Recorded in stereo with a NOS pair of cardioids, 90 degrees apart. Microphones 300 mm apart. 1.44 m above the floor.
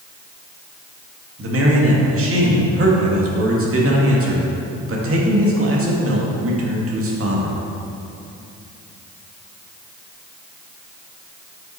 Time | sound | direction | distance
1.4 | a man speaking | 45° right | 2.5 m